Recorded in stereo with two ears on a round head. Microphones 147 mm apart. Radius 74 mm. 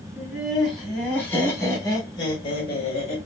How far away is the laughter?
About 2 m.